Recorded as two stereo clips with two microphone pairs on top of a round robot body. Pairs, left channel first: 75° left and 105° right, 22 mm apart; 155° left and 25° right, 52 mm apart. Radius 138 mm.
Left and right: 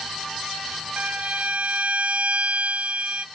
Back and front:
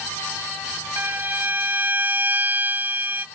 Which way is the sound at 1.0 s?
80° right.